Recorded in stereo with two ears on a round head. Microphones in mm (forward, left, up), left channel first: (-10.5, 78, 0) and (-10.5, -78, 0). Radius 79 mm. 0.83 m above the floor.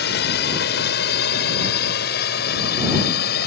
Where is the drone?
65° left (ahead or behind); by 3.5 s 60° left (ahead or behind).